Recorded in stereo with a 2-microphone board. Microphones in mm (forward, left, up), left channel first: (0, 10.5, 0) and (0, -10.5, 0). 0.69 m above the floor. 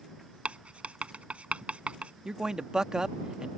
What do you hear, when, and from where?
0.5 s writing: 75° right (ahead or behind)
2.2 s a man speaking: 35° right (ahead or behind)